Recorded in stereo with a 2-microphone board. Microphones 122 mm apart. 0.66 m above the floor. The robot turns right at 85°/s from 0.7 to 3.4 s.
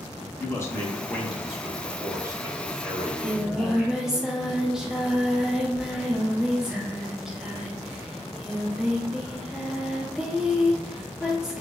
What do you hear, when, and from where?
0.4 s a man speaking: 20° left (ahead or behind), 0.7 m; by 4.0 s centre (ahead or behind), 0.7 m
3.0 s singing: 40° right, 0.6 m; by 11.6 s 5° right, 0.6 m